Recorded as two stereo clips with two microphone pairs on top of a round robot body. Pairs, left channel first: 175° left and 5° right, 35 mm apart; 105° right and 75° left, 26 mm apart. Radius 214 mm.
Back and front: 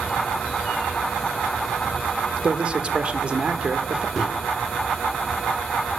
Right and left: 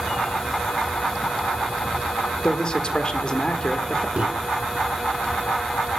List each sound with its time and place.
2.4 s a man speaking: 55° right, 1.3 m
4.2 s a microwave: 80° left, 1.6 m